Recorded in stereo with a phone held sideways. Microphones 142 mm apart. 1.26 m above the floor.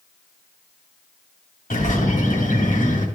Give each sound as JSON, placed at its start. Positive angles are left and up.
{"t": 1.7, "sound": "a bird", "side_deg": 85, "distance_m": 2.0}